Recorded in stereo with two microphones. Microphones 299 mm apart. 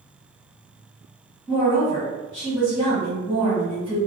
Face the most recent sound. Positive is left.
turn(degrees=0)  # may be behind; listen again after turning